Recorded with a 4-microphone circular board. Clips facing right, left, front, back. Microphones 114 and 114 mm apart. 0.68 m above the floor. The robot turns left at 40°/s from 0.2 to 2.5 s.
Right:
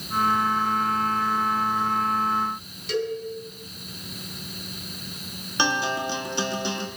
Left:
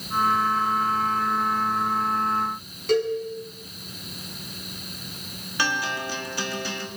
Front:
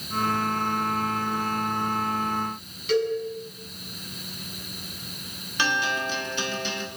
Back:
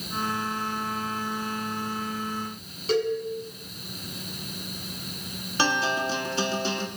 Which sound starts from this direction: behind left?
A cowbell, at 2.9 s.